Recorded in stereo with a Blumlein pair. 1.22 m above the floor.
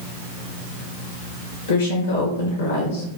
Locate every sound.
1.7 s a woman speaking: 60° left, 1.1 m